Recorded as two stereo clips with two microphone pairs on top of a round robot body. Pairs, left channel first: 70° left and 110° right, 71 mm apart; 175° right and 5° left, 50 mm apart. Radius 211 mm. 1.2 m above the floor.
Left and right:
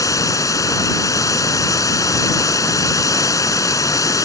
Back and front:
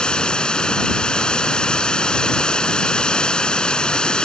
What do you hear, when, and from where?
0.0 s running water: 110° left